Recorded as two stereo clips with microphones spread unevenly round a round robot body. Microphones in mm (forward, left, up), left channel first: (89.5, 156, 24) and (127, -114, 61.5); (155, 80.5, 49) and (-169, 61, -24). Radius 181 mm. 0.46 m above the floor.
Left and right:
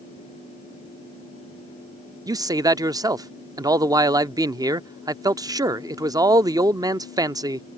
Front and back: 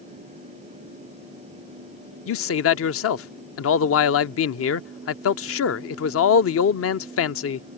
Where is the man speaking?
Straight ahead.